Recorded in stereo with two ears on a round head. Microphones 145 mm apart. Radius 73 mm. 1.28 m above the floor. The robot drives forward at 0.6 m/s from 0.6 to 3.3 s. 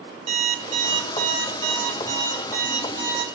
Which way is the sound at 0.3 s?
45° right (ahead or behind).